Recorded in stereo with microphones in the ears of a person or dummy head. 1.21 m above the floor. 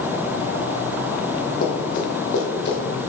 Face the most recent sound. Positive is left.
turn(degrees=60)  # may be behind; listen again after turning